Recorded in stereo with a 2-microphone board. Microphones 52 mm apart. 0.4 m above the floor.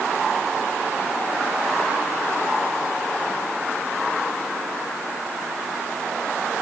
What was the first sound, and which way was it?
Only background noise.